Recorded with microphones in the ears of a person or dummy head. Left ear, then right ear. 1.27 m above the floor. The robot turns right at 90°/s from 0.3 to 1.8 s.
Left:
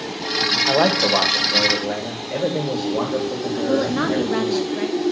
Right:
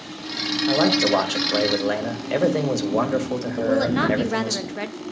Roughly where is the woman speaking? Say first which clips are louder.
Right 1 dB; centre.